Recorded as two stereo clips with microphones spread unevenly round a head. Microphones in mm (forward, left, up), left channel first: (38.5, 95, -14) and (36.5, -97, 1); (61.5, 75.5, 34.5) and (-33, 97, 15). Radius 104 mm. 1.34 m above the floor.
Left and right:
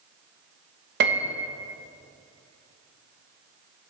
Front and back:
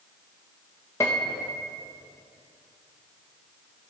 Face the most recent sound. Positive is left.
turn(degrees=-80)